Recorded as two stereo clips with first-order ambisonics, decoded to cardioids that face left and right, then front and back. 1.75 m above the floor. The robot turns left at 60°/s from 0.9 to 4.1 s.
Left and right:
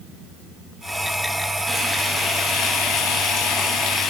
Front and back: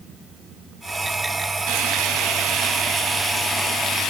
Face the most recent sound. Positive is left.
turn(degrees=45)